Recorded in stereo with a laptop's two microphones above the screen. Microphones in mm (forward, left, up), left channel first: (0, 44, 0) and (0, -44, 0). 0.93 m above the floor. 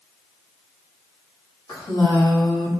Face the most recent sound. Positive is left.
turn(degrees=50)  # may be behind; listen again after turning